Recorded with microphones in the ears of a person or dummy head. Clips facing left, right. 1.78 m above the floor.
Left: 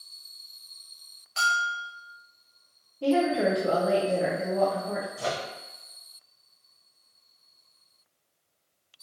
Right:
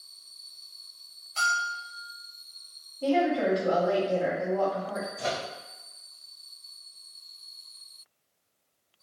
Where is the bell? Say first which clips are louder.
Left 2 dB; 15° left (ahead or behind), 1.0 m.